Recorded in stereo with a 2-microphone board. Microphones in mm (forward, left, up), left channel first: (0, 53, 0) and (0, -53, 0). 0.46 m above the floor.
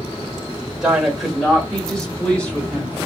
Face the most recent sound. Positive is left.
turn(degrees=15)  # may be behind; listen again after turning